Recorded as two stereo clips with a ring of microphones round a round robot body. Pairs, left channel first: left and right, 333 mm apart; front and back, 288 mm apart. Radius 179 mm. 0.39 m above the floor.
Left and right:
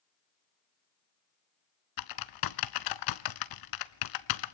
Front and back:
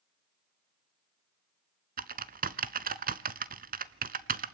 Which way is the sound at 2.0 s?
120° left.